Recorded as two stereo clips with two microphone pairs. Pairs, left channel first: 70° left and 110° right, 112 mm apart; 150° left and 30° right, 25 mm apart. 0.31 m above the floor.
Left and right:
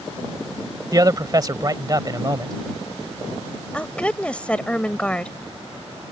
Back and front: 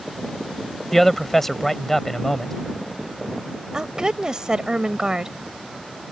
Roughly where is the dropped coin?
No dropped coin in this recording.